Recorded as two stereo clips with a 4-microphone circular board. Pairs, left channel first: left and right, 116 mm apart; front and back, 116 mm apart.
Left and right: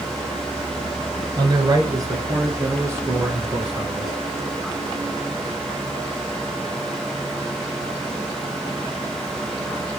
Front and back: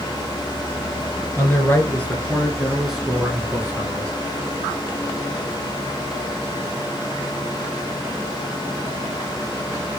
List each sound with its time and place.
1.4 s a man speaking: 60° right, 1.8 m; by 4.1 s 175° right, 1.5 m